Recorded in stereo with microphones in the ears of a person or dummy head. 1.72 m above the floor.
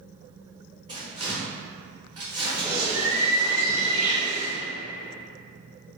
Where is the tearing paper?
35° right (ahead or behind), 1.2 m.